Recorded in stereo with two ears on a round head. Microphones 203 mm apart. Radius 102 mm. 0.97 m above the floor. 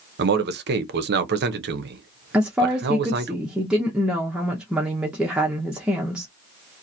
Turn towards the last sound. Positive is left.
turn(degrees=-5)  # may be behind; listen again after turning